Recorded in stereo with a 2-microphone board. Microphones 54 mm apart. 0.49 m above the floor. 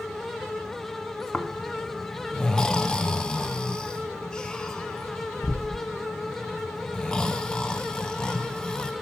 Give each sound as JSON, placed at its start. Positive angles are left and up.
{"t": 1.3, "sound": "snoring", "side_deg": 15, "distance_m": 0.7}